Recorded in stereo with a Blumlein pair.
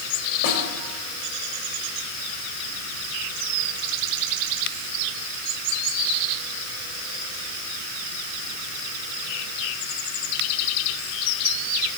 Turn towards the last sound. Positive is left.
turn(degrees=50)